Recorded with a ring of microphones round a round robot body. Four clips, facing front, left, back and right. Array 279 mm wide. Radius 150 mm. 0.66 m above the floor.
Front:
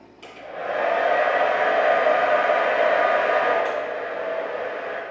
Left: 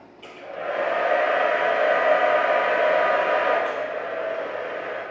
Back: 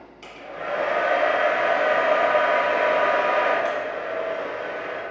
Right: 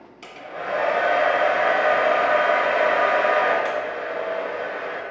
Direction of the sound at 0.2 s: 95° right.